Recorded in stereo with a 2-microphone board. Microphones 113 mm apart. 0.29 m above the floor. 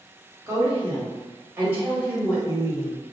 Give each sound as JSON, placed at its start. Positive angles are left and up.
{"t": 0.5, "sound": "a woman speaking", "side_deg": -30, "distance_m": 1.4}